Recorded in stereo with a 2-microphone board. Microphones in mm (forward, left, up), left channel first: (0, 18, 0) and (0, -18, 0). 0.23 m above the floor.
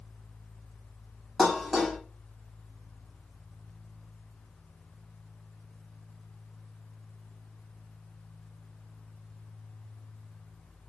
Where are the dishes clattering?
Centre (ahead or behind), 0.8 m.